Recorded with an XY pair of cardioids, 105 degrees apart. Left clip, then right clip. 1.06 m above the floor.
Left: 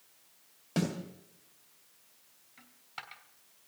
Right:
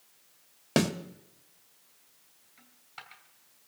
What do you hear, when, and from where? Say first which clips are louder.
0.8 s a snare drum: right 7 dB; 70° right, 1.8 m
2.6 s a dropped coin: left 3 dB; 35° left, 2.5 m